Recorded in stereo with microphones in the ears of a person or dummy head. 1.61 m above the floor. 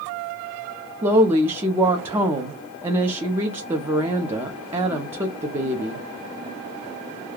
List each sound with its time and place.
1.0 s a woman speaking: 15° right (ahead or behind), 0.6 m